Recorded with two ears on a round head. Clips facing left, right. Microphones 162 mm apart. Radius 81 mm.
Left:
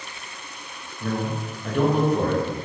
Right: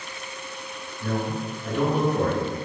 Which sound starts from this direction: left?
A man speaking, at 1.0 s.